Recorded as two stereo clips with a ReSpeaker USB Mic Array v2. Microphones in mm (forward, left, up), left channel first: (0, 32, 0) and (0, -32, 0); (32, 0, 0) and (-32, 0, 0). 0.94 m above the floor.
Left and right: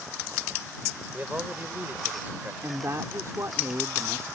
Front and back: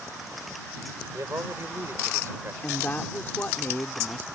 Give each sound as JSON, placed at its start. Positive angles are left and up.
{"t": 1.1, "sound": "a man speaking", "azimuth_deg": -150}
{"t": 2.6, "sound": "a woman speaking", "azimuth_deg": -55}